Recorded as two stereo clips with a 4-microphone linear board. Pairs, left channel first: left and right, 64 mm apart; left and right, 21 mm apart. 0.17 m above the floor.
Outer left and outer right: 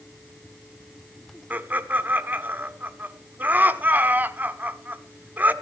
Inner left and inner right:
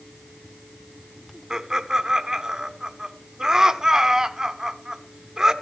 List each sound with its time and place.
1.5 s laughter: 30° right (ahead or behind), 1.1 m